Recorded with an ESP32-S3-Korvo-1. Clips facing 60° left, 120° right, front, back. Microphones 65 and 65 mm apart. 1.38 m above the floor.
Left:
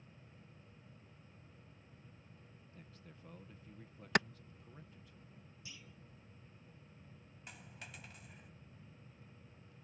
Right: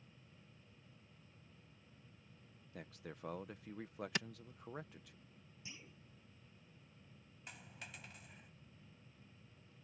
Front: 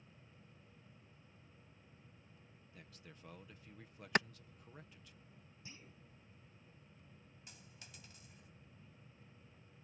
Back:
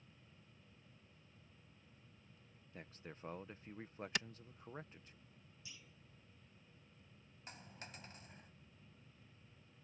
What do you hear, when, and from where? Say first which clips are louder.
2.7 s a man speaking: right 9 dB, back 6 dB; 125° right
4.2 s a clap: left 10 dB, front 9 dB; 35° left
5.7 s a clunk: right 1 dB, front 3 dB; 55° right
7.5 s a dropped coin: even, back 8 dB; 150° left